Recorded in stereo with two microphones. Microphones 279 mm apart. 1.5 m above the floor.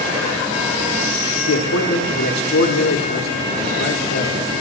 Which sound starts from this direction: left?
A man speaking, at 1.4 s.